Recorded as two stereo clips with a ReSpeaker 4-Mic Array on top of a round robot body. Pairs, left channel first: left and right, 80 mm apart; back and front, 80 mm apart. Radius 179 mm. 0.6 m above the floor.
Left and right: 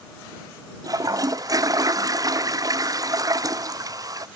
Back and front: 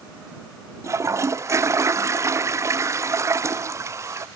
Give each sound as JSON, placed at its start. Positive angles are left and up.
{"t": 0.8, "sound": "a toilet flushing", "azimuth_deg": -50}